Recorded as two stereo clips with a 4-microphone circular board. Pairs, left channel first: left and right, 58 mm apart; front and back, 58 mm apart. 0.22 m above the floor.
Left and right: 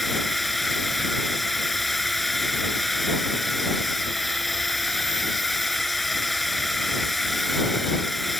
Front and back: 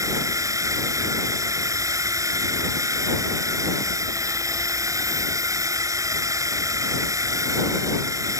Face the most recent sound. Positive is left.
turn(degrees=175)